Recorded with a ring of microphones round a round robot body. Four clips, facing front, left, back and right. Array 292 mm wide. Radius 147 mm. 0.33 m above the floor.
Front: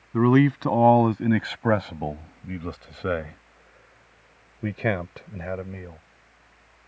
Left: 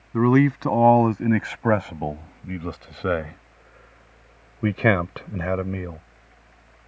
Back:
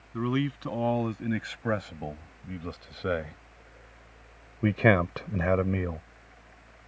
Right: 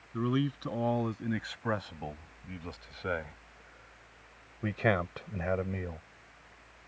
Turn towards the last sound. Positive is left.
turn(degrees=145)